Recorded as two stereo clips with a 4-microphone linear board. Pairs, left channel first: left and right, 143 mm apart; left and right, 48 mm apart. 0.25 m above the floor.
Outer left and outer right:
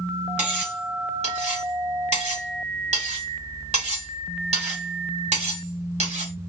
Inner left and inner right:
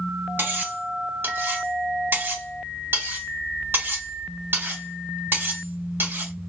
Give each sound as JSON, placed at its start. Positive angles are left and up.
{"t": 0.4, "sound": "cutlery clinking", "side_deg": -50, "distance_m": 1.3}